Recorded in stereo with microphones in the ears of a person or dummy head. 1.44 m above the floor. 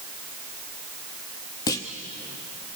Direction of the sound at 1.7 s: 20° left (ahead or behind).